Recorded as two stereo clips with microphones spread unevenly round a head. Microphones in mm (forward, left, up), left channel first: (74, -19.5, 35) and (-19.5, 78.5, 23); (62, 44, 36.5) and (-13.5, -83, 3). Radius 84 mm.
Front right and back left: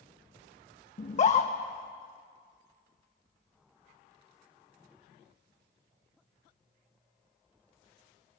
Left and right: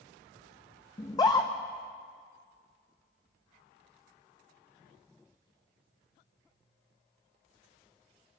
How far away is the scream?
About 1.4 m.